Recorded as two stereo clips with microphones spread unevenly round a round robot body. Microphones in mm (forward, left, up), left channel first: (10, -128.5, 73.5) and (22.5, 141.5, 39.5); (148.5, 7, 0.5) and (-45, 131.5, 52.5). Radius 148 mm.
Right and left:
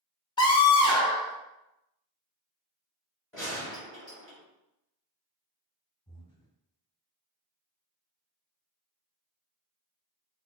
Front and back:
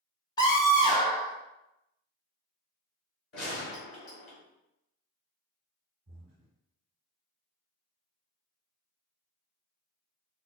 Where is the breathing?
170° right, 0.6 m.